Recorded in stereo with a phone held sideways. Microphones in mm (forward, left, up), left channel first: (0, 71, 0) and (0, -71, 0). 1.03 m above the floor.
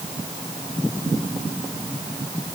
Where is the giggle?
I don't hear a giggle.